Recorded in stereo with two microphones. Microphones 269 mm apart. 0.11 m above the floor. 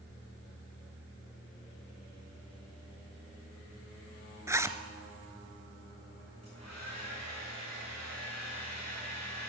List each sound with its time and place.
4.5 s a zipper: 10° right (ahead or behind), 0.7 m
6.4 s a hair dryer: 85° left, 6.5 m